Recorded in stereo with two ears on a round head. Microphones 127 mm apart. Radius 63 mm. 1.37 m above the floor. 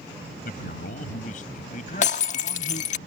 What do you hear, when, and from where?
0.5 s a man speaking: 65° left (ahead or behind); by 2.9 s 50° left (ahead or behind)
2.0 s breaking glass: 55° left (ahead or behind)